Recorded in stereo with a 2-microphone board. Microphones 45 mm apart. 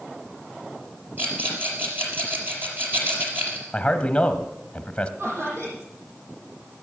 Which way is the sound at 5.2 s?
80° right.